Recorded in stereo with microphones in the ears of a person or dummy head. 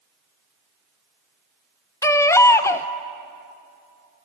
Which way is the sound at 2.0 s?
15° left (ahead or behind).